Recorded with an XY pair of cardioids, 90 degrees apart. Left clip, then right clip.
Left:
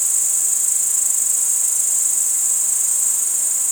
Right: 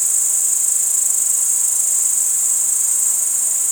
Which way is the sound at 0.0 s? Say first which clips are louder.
Right 1 dB; 10° right.